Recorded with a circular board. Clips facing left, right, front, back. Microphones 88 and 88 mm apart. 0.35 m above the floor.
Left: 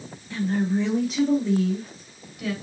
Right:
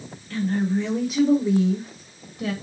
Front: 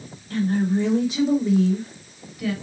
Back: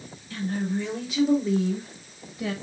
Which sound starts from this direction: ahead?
A woman speaking, at 0.3 s.